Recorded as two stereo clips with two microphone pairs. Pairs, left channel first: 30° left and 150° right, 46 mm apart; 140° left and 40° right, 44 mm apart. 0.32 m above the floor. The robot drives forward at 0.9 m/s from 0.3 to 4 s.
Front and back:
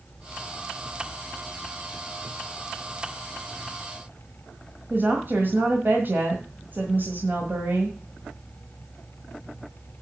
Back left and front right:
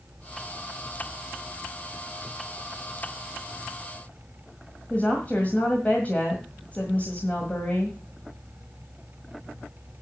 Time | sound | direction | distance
4.9 | a woman speaking | 170° right | 1.7 m